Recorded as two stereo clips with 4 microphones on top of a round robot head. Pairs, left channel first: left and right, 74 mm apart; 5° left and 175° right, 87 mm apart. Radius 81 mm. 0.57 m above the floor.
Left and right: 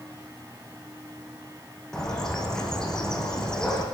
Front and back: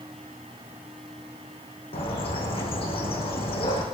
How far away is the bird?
About 6.5 m.